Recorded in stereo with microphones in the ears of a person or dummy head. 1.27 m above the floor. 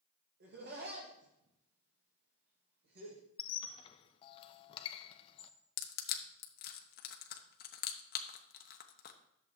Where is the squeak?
30° left (ahead or behind), 0.6 m.